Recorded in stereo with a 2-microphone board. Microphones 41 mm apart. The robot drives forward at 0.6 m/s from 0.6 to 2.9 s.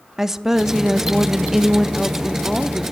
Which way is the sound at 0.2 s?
5° right (ahead or behind).